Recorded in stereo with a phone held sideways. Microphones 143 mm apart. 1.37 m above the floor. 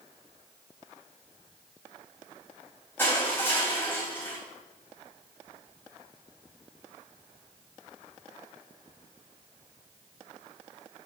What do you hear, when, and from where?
3.0 s crushing: 15° left (ahead or behind), 3 m